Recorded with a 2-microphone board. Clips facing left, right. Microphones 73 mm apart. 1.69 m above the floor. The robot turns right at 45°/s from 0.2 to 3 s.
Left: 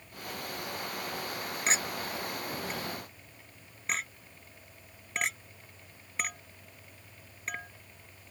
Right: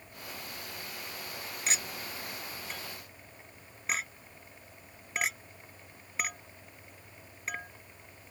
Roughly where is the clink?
Left.